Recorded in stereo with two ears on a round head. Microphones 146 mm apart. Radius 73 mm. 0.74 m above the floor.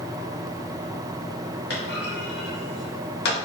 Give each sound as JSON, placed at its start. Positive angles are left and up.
{"t": 1.7, "sound": "a clunk", "side_deg": 70, "distance_m": 1.0}